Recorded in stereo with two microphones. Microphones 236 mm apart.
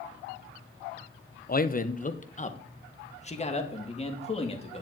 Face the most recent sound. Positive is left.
turn(degrees=25)  # may be behind; listen again after turning